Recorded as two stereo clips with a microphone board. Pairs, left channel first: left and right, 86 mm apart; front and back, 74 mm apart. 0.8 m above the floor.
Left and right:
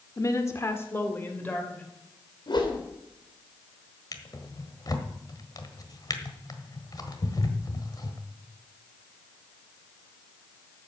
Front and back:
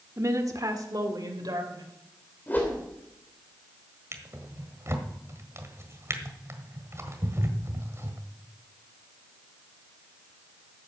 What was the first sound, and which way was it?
A woman speaking, 135° left.